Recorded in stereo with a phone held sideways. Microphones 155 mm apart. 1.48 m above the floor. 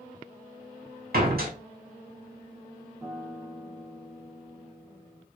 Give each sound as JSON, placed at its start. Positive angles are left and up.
{"t": 1.1, "sound": "a door slam", "side_deg": -70, "distance_m": 1.2}
{"t": 3.0, "sound": "a guitar", "side_deg": -15, "distance_m": 1.2}